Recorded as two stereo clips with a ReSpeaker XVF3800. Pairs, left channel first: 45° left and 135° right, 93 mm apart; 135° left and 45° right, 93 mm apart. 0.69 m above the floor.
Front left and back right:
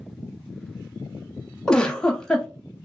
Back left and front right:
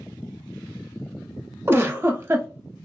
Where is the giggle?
30° right, 0.5 m.